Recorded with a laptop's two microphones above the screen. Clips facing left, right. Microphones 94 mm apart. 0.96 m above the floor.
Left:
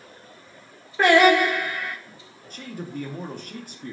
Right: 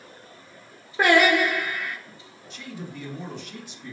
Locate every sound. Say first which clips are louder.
1.0 s singing: left 3 dB; 10° right (ahead or behind), 1.2 m
2.5 s a man speaking: left 3 dB; 45° left (ahead or behind), 0.6 m